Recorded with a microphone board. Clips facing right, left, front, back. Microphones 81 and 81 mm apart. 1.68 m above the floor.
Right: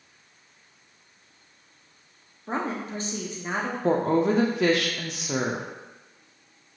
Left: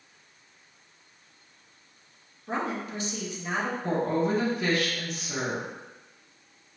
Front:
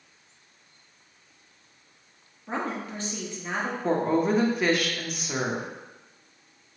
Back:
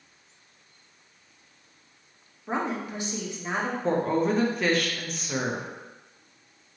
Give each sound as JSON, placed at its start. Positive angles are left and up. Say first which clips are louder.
{"t": 2.5, "sound": "a woman speaking", "louder": "right 1 dB, back 2 dB", "azimuth_deg": -115, "distance_m": 0.6}
{"t": 3.8, "sound": "a woman speaking", "louder": "right 6 dB, front 1 dB", "azimuth_deg": -85, "distance_m": 0.5}